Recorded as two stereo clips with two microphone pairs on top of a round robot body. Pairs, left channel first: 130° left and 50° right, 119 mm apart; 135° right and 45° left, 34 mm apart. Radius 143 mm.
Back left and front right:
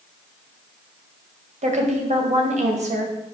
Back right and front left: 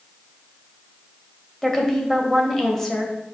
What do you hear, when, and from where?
1.6 s a woman speaking: 55° right, 2 m